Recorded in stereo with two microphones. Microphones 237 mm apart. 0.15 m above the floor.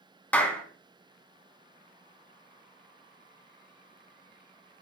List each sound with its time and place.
0.3 s a clap: 5° left (ahead or behind), 1.1 m